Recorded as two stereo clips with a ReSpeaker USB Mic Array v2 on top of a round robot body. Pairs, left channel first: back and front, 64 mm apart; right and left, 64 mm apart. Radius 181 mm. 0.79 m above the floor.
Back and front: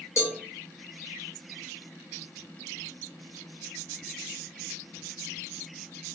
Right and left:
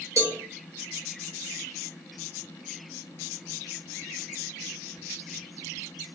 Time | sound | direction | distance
0.2 | a cowbell | 135° left | 0.9 m